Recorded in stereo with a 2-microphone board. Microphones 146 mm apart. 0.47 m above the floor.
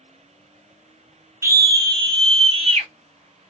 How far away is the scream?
About 0.9 m.